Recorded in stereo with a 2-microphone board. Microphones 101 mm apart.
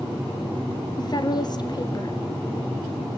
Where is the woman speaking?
45° left (ahead or behind), 1.8 m.